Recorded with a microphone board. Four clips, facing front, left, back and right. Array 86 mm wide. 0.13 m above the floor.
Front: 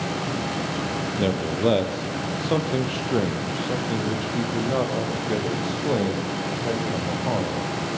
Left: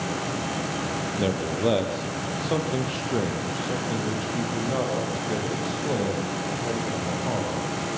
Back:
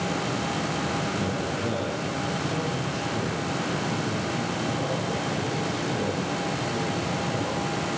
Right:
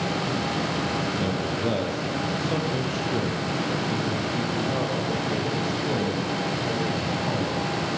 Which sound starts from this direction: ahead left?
A man speaking, at 1.2 s.